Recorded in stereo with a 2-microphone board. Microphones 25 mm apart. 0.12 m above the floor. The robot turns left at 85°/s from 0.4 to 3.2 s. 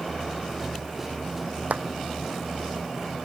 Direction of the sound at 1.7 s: 75° right (ahead or behind).